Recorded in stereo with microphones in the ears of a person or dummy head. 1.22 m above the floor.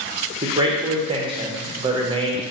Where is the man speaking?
20° right (ahead or behind), 0.7 m.